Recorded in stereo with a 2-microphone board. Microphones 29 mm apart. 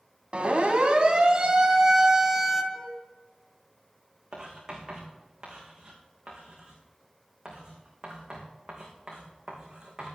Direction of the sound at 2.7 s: 5° left (ahead or behind).